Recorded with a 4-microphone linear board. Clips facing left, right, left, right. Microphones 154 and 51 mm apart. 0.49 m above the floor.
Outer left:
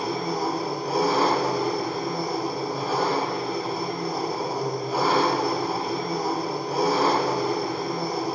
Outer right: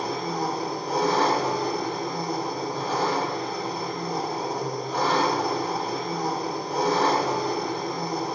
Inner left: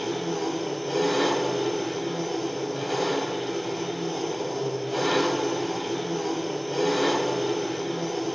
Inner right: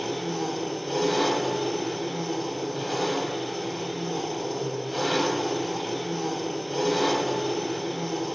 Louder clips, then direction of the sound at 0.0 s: Outer left 1 dB, inner left 1 dB; 5° left (ahead or behind).